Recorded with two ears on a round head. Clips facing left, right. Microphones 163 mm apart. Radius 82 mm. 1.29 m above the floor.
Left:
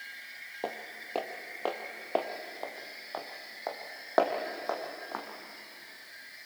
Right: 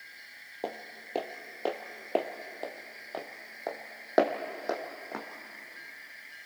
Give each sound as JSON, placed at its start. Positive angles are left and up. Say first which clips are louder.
{"t": 0.6, "sound": "footsteps", "louder": "even", "side_deg": -10, "distance_m": 1.3}